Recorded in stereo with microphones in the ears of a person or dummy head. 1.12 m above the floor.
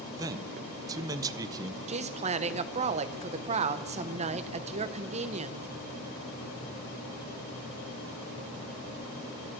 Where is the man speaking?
15° right (ahead or behind), 0.7 m.